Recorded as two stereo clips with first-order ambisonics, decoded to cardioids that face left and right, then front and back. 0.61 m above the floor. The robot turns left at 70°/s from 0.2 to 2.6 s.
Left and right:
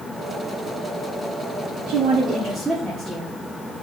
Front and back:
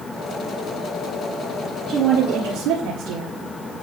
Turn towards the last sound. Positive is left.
turn(degrees=-175)